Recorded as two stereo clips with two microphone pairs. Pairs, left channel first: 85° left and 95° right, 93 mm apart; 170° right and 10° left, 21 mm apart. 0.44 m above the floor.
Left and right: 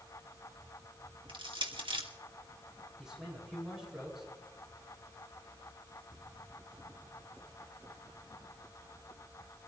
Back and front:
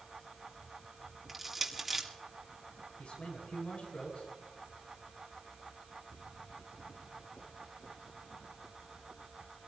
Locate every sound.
1.3 s crushing: 65° right, 2 m
3.0 s a man speaking: straight behind, 7 m